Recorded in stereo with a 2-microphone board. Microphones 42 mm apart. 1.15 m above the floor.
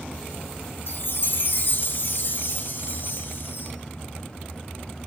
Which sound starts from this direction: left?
A chime, at 0.9 s.